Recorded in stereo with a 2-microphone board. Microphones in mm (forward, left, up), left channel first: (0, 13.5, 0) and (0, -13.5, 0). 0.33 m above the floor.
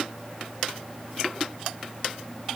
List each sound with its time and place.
Only background noise.